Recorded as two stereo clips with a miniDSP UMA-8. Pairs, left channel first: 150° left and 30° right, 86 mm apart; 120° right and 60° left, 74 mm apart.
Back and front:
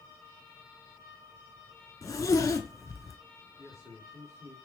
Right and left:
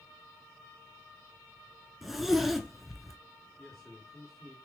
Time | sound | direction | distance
2.0 | a zipper | 145° left | 0.5 m
3.6 | a man speaking | 35° right | 2 m